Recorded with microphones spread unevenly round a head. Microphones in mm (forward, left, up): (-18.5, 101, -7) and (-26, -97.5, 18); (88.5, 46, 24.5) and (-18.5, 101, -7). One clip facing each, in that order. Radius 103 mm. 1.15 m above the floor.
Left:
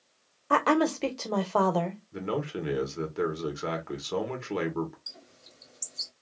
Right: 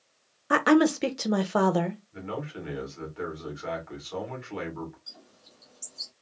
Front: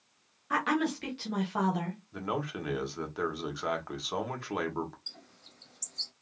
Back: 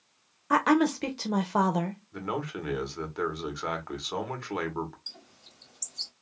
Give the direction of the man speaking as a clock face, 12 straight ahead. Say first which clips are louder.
Left 4 dB, even; 10 o'clock.